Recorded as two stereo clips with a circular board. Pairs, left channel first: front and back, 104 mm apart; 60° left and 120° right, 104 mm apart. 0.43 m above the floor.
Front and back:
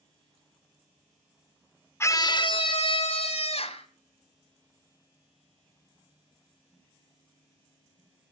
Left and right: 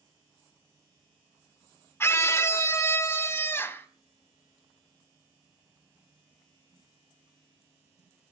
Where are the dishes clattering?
No dishes clattering in this recording.